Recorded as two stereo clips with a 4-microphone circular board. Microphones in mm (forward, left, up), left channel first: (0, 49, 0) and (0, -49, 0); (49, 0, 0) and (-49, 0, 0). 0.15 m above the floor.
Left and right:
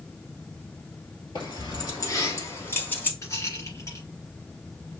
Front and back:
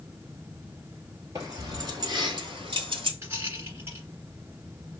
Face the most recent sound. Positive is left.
turn(degrees=125)